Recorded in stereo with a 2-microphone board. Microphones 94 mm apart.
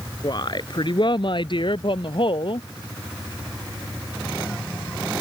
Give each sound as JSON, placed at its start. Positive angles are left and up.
{"t": 0.2, "sound": "a woman speaking", "side_deg": 50}